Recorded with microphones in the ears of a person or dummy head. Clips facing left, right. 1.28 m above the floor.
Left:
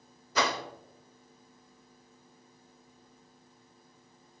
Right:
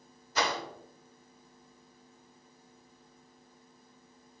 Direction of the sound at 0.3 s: 70° left (ahead or behind).